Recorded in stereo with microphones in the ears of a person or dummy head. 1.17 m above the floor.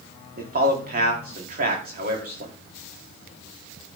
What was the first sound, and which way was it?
A man speaking, 40° right (ahead or behind).